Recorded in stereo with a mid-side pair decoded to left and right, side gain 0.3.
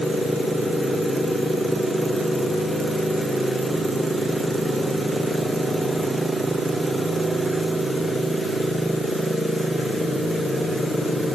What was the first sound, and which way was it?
Only background noise.